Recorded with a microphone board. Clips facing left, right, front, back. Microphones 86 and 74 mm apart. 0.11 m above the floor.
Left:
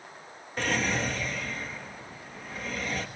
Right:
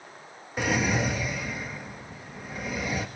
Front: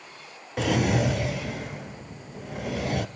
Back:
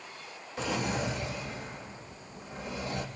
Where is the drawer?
10° right, 0.6 m.